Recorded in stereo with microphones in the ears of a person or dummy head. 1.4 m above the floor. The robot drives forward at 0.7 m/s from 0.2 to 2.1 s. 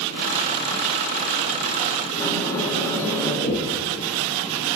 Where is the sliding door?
10° left (ahead or behind), 1.6 m.